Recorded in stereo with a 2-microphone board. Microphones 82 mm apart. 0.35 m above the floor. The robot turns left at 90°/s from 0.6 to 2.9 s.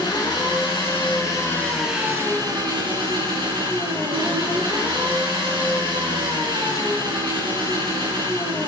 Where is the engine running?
110° left, 3 m; by 8.7 s 100° right, 3 m.